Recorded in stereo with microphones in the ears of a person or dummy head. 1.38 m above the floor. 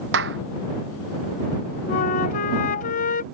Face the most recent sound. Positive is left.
turn(degrees=50)  # may be behind; listen again after turning